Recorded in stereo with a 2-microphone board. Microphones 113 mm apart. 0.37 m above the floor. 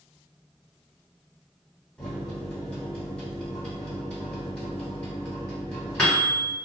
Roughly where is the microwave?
Centre.